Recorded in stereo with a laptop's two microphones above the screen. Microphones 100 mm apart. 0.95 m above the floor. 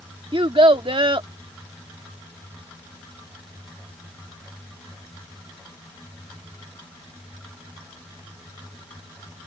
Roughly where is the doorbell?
I don't hear a doorbell.